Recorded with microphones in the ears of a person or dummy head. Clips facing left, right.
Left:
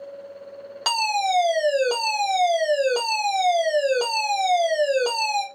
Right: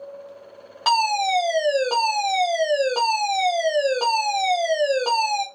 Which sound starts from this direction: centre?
A fire alarm, at 0.8 s.